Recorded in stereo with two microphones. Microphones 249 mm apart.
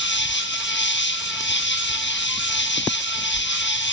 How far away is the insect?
About 1.4 m.